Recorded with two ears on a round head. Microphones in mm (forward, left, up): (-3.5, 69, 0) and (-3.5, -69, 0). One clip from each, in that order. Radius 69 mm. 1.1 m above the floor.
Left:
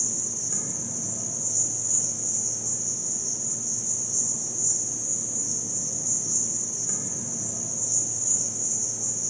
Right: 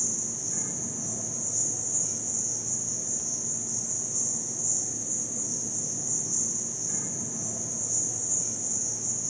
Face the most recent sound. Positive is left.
turn(degrees=75)  # may be behind; listen again after turning